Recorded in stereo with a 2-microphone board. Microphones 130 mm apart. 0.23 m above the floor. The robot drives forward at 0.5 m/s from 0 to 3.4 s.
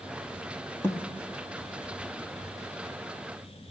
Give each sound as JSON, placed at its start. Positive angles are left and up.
{"t": 0.8, "sound": "a thud", "side_deg": 15, "distance_m": 1.3}